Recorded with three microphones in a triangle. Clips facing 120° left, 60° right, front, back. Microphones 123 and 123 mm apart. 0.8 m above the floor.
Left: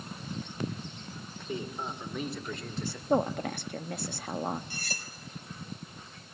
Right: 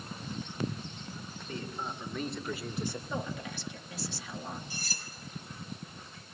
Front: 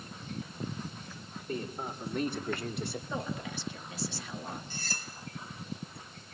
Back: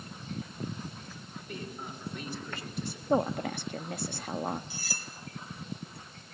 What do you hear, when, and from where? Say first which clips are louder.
1.5 s a man speaking: left 3 dB, front 5 dB; 50° left, 2.5 m; by 3.0 s 5° left, 1.6 m
3.1 s a woman speaking: left 10 dB, back 14 dB; 150° left, 0.9 m
4.7 s cutlery clinking: left 2 dB, even; 100° left, 2.5 m